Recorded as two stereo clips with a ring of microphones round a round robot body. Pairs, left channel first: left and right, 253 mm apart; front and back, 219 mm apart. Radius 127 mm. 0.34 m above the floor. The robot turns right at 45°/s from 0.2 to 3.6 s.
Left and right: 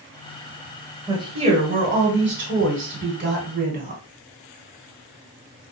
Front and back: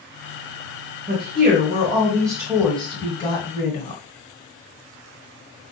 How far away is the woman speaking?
About 1.6 m.